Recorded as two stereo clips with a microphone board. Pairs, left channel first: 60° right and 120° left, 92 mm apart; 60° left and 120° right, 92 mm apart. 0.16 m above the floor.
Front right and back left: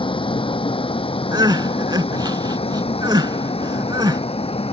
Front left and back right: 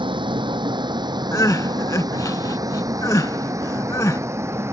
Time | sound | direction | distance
0.0 | a vehicle | 85° right | ?
1.3 | crying | 100° left | ?